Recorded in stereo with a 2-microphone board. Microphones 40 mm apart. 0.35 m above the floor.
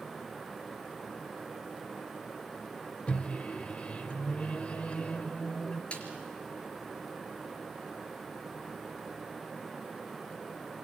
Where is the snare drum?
30° left (ahead or behind), 4 m.